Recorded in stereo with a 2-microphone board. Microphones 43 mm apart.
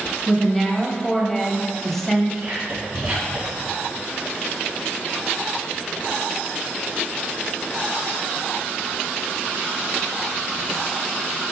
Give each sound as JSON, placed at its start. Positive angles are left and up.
{"t": 0.3, "sound": "a woman speaking", "side_deg": 5, "distance_m": 1.0}
{"t": 2.4, "sound": "whispering", "side_deg": -20, "distance_m": 1.9}